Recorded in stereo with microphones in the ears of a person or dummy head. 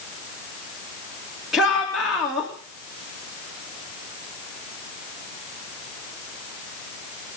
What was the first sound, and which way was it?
A shout, centre (ahead or behind).